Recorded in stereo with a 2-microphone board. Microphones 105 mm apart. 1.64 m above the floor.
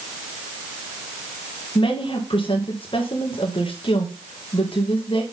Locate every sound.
1.8 s a woman speaking: 50° left (ahead or behind), 2 m